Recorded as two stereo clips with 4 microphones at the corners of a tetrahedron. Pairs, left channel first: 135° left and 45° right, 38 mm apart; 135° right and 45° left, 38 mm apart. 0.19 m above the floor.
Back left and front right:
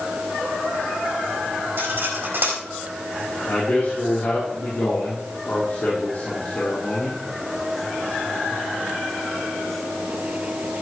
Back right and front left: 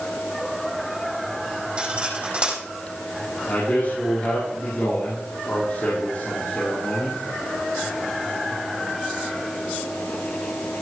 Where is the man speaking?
Straight behind, 5.5 m.